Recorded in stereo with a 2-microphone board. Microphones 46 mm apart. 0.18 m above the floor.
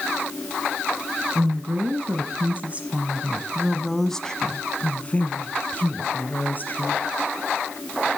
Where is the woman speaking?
50° right (ahead or behind), 1.6 m; by 7.0 s 45° left (ahead or behind), 2.5 m.